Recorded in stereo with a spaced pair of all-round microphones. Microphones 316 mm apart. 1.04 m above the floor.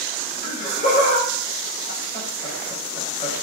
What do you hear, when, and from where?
0.4 s laughter: 30° left (ahead or behind), 4 m